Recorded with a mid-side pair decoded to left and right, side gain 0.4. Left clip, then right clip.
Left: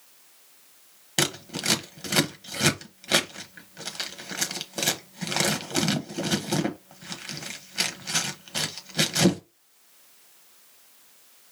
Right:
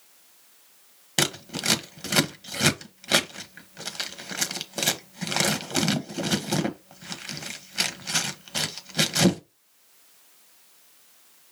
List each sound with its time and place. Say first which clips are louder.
1.2 s scissors: right 1 dB; 15° right, 0.8 m